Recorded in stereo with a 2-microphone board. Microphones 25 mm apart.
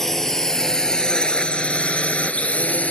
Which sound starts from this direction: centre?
A drone, at 0.0 s.